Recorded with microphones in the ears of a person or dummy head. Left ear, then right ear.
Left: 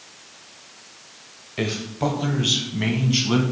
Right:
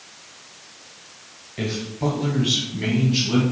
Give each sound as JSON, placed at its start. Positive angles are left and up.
{"t": 1.6, "sound": "a man speaking", "side_deg": 30, "distance_m": 0.8}